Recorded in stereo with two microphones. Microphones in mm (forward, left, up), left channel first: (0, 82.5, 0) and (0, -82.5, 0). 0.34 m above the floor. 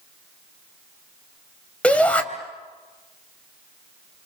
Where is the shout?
10° left (ahead or behind), 2 m.